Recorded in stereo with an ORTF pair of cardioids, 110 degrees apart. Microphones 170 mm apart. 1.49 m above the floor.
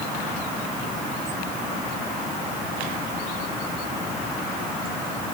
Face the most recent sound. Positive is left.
No sound to turn to.